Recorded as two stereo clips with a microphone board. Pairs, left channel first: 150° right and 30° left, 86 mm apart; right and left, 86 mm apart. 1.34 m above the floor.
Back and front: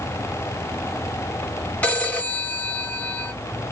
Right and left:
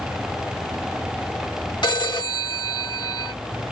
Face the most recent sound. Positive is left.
turn(degrees=-75)